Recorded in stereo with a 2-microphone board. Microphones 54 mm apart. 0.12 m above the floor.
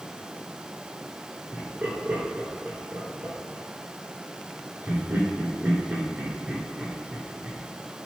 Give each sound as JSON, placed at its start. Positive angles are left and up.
{"t": 1.5, "sound": "laughter", "side_deg": -35, "distance_m": 1.7}